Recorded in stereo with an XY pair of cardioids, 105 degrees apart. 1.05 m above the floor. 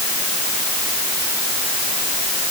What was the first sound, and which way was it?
Only background noise.